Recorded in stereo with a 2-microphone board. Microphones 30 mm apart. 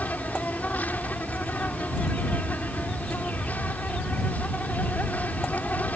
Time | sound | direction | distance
0.0 | an insect | 75° left (ahead or behind) | ?